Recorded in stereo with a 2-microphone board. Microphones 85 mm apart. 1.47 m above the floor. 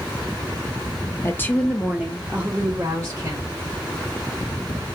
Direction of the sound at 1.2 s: 35° left (ahead or behind).